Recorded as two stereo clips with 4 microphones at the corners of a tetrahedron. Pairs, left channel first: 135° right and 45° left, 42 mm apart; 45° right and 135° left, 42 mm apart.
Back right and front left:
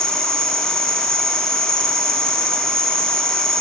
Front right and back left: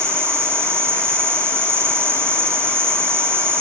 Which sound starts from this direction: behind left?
An insect, at 0.0 s.